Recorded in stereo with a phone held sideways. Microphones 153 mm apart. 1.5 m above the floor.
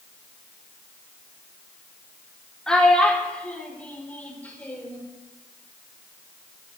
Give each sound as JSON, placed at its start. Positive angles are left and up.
{"t": 2.7, "sound": "a child speaking", "side_deg": 5, "distance_m": 3.5}